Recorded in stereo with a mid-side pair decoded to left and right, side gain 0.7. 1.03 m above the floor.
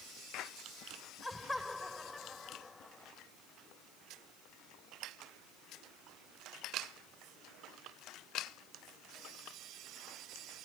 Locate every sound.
1.2 s laughter: 5° left; by 3.1 s 15° left